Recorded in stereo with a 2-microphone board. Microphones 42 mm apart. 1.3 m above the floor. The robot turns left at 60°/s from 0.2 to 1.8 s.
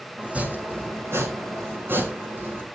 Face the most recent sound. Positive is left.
turn(degrees=-120)